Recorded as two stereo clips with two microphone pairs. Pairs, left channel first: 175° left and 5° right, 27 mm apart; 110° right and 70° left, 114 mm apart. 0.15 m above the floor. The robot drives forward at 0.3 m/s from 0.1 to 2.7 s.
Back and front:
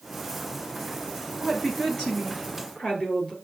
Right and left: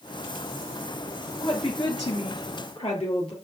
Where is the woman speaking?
125° right, 2 m; by 3.3 s 135° right, 2.5 m.